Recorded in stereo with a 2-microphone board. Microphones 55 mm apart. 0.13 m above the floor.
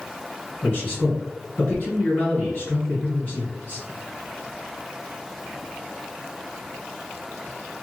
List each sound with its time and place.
0.6 s a man speaking: 35° left (ahead or behind), 2.0 m